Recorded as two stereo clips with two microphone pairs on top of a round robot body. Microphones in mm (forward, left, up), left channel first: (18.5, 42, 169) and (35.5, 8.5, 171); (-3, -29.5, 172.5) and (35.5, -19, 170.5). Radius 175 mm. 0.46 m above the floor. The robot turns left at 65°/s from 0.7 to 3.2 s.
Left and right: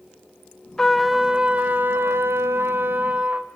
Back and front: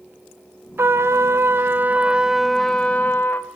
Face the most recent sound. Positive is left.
turn(degrees=-120)